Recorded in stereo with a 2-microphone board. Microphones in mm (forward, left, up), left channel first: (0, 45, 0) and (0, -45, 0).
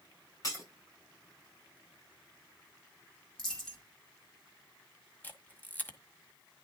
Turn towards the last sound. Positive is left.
turn(degrees=20)  # may be behind; listen again after turning